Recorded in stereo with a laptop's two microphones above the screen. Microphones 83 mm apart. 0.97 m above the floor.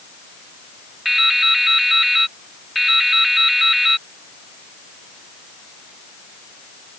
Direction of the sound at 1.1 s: Centre (ahead or behind).